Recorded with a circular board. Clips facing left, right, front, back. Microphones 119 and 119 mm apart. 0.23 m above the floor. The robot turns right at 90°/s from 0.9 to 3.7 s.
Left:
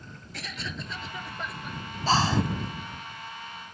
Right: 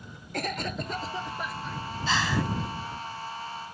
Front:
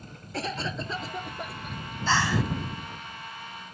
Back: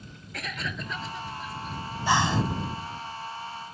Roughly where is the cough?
Ahead right.